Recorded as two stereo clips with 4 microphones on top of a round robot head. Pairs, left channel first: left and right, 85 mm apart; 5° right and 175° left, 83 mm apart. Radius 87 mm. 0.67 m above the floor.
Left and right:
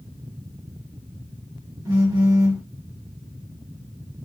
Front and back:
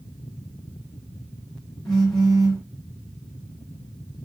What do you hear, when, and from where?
1.9 s a phone buzzing: 85° right, 1.5 m